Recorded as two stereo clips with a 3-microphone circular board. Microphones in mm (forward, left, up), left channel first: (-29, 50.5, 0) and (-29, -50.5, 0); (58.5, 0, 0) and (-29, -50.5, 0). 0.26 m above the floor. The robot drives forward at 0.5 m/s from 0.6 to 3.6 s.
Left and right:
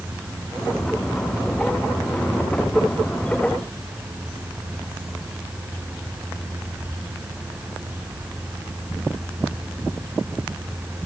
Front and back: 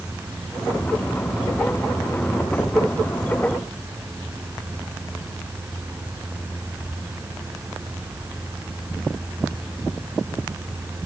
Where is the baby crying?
I don't hear a baby crying.